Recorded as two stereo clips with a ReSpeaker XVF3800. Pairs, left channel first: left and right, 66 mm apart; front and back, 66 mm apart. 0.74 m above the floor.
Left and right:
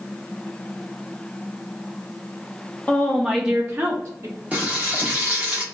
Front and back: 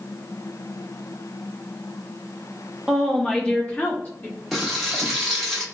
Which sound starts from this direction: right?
Frying, at 4.5 s.